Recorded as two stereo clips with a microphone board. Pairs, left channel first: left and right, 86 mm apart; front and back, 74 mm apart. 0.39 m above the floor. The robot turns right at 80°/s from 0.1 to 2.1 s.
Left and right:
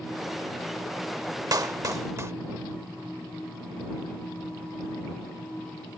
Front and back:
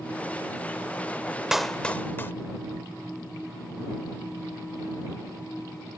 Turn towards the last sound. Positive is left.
turn(degrees=-50)